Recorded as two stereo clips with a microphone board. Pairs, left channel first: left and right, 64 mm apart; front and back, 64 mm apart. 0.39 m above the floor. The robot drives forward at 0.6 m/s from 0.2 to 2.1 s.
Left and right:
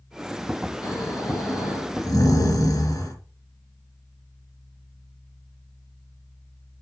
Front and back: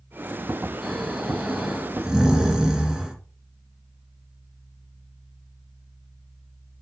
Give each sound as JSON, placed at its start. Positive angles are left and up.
{"t": 0.8, "sound": "snoring", "azimuth_deg": 90, "distance_m": 4.0}